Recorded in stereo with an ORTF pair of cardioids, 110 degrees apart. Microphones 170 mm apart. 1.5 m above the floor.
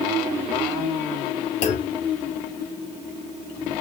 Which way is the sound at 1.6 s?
45° left.